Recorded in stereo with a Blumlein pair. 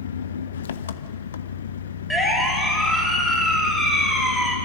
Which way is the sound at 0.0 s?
65° left.